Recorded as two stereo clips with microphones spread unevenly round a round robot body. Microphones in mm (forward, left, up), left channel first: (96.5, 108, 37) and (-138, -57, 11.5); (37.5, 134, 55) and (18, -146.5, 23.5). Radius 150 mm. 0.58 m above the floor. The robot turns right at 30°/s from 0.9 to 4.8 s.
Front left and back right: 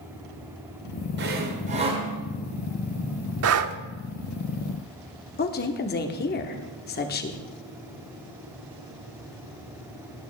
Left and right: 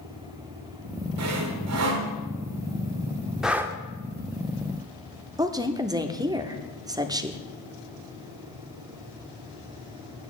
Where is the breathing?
Straight behind, 0.7 m; by 3.8 s 170° right, 0.7 m.